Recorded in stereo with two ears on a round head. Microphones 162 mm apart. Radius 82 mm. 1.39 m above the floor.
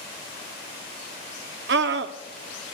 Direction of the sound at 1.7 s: 60° right (ahead or behind).